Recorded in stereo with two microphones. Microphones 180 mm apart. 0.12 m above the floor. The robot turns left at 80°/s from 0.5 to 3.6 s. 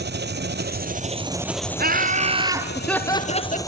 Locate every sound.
0.0 s an engine running: 90° right, 0.7 m; by 3.7 s 20° left, 0.7 m
1.8 s laughter: 100° right, 1.9 m; by 3.6 s 120° left, 1.9 m